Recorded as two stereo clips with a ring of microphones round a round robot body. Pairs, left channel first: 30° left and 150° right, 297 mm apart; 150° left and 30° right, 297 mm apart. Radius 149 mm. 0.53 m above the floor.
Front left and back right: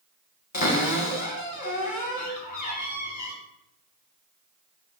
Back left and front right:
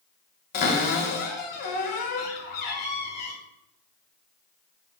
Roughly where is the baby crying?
I don't hear a baby crying.